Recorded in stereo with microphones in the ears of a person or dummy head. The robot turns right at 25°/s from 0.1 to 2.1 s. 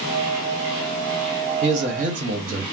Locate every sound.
1.6 s a man speaking: 35° right (ahead or behind), 0.8 m